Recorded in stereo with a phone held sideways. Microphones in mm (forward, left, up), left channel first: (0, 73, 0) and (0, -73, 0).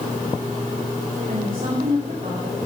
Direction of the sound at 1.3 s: 45° right (ahead or behind).